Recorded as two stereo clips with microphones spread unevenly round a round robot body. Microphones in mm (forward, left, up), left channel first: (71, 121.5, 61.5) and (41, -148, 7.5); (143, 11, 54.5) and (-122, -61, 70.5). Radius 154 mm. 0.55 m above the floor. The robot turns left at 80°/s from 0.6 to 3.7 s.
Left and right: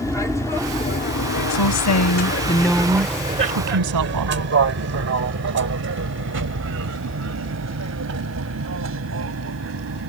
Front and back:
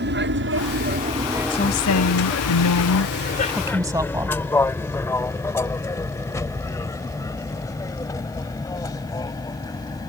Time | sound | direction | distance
0.0 | an aircraft | 170° left | ?
1.5 | a woman speaking | 90° left | ?